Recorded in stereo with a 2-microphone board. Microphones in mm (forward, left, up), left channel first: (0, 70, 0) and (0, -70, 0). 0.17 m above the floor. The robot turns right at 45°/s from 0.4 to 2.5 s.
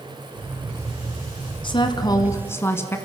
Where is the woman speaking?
115° left, 1.8 m; by 3.0 s 150° left, 1.8 m.